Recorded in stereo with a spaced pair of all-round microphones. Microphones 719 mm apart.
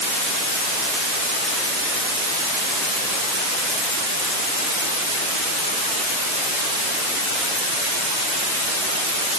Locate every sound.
Only background noise.